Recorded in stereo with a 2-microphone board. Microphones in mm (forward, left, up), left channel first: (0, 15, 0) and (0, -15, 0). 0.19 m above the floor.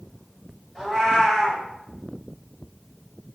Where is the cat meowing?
5° left (ahead or behind), 1.3 m.